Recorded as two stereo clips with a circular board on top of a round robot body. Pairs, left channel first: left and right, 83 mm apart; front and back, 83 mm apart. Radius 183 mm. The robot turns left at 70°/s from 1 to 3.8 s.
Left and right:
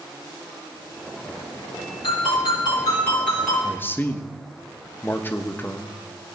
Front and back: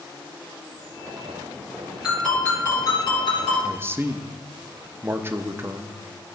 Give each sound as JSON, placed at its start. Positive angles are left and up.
{"t": 2.0, "sound": "a ringtone", "azimuth_deg": 100, "distance_m": 5.0}
{"t": 3.6, "sound": "a man speaking", "azimuth_deg": 150, "distance_m": 1.0}